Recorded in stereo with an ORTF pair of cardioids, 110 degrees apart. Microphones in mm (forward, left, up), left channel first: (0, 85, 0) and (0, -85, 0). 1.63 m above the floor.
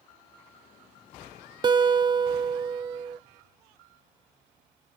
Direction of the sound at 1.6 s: 25° right.